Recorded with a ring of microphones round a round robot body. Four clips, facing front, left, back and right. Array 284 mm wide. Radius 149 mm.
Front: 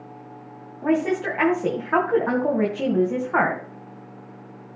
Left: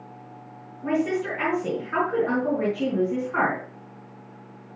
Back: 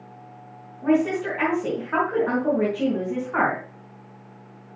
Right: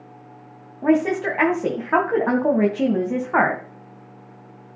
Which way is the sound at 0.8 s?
70° right.